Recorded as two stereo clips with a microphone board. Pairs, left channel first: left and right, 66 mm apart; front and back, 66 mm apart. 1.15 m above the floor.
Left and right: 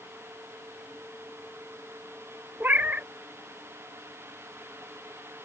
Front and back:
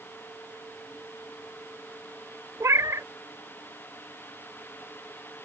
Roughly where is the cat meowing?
Behind right.